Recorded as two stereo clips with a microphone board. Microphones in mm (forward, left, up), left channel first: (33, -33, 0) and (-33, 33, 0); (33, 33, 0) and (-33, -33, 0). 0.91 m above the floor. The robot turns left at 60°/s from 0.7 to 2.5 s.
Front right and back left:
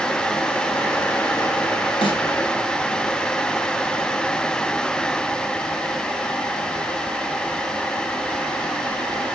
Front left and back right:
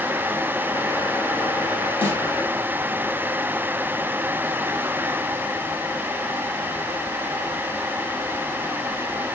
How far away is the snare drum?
About 6.5 m.